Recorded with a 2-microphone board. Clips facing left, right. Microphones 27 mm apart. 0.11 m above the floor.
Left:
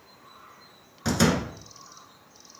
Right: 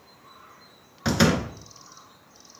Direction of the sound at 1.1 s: 25° right (ahead or behind).